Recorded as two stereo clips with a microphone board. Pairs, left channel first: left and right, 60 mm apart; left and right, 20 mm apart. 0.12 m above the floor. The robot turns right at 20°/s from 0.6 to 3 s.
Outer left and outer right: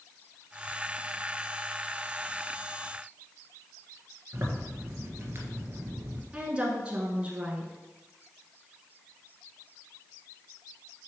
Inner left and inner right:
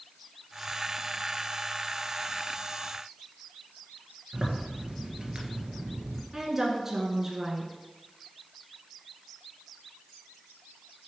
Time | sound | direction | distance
4.3 | a zipper | 45° right (ahead or behind) | 1.6 m
6.3 | a woman speaking | 20° right (ahead or behind) | 1.4 m